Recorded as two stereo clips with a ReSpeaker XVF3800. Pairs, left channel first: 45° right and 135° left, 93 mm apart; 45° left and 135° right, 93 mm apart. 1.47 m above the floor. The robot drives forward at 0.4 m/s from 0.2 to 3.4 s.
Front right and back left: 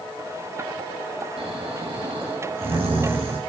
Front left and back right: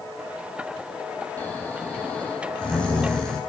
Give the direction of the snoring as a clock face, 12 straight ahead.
8 o'clock.